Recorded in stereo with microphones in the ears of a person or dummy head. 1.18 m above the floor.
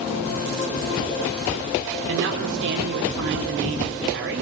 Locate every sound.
2.1 s a woman speaking: 75° right (ahead or behind), 4 m